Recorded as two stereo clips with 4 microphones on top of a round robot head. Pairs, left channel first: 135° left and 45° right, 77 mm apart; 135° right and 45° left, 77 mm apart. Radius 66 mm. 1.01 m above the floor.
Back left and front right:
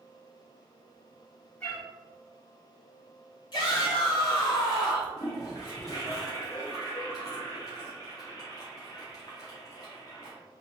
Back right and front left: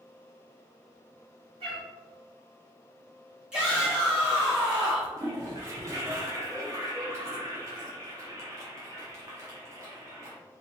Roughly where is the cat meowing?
Ahead left.